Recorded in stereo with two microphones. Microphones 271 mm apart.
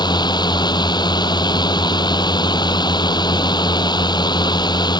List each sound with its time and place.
0.0 s a drone: 15° left (ahead or behind)